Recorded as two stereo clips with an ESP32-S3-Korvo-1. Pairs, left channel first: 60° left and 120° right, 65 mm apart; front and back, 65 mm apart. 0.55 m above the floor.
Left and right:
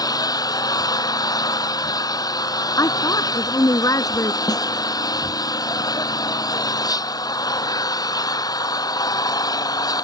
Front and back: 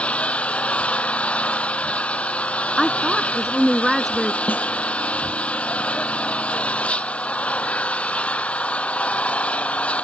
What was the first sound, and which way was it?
An engine running, 70° left.